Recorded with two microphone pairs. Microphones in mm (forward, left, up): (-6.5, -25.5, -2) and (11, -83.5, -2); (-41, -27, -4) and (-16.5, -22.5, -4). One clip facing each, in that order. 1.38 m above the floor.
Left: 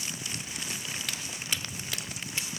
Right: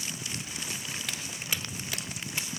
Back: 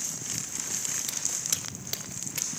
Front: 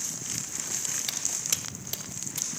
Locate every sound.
1.1 s footsteps: 10° left, 1.4 m; by 2.5 s 150° right, 1.9 m